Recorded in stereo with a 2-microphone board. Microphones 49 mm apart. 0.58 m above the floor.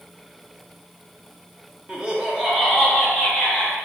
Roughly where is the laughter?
Right.